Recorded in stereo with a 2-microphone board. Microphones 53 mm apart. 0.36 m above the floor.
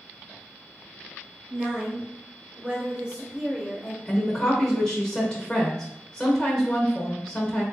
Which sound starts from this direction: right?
A woman speaking, at 1.5 s.